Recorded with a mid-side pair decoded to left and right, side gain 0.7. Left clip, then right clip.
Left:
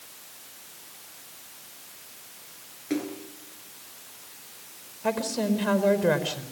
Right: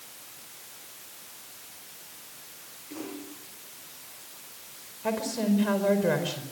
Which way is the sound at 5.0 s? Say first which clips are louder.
Left 2 dB; 15° left.